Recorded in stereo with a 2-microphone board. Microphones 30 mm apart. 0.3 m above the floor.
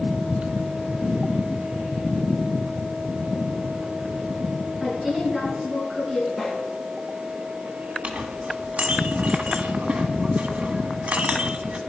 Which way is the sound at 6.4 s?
5° right (ahead or behind).